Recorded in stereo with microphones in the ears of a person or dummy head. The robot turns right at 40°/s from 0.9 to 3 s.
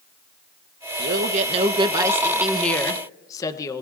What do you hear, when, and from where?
1.0 s a man speaking: 60° right, 0.9 m; by 3.8 s 20° left, 0.9 m